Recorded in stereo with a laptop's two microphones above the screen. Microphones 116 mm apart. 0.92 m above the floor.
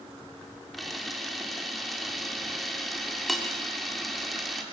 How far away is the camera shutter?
About 2.5 m.